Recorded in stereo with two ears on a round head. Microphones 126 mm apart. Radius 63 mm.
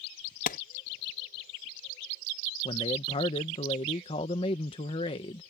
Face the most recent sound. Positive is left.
turn(degrees=40)  # may be behind; listen again after turning